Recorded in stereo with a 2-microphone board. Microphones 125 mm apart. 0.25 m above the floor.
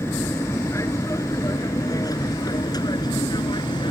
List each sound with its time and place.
0.0 s an aircraft: 20° left (ahead or behind); by 3.9 s 35° left (ahead or behind)